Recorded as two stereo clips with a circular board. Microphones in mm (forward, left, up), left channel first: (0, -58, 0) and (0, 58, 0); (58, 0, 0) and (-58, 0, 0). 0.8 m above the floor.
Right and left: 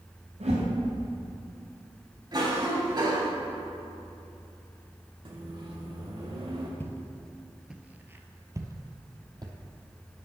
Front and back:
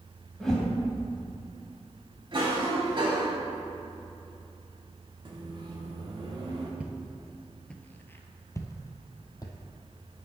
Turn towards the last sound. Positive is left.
turn(degrees=50)